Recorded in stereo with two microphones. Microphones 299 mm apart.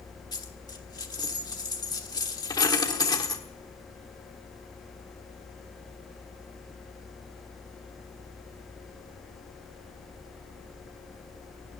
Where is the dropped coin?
15° left (ahead or behind), 1.3 m.